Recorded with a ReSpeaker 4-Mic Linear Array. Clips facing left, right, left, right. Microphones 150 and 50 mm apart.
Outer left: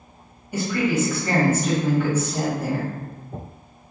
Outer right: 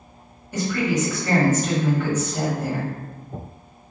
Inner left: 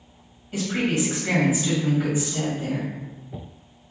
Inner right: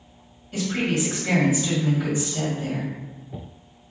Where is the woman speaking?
10° left (ahead or behind), 1.6 m.